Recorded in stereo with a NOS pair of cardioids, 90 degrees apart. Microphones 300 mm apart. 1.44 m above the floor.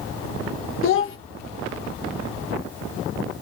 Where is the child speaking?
45° left, 0.7 m.